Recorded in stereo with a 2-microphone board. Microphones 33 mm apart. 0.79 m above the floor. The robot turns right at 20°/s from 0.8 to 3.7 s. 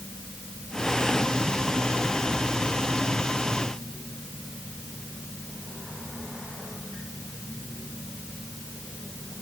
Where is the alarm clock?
I don't hear an alarm clock.